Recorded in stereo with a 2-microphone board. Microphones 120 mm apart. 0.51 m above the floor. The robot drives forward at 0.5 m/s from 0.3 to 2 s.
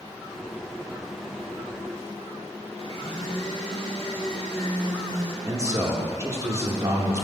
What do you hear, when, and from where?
2.8 s a blender: 45° left (ahead or behind), 1.5 m
5.5 s a man speaking: 25° right (ahead or behind), 0.8 m